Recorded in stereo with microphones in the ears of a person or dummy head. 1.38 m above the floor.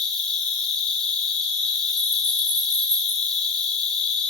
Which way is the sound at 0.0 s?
Centre (ahead or behind).